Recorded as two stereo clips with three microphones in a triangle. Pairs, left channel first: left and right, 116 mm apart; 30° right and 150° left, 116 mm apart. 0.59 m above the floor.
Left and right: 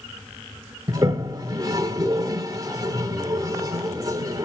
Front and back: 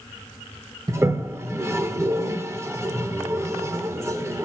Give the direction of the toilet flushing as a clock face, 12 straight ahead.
5 o'clock.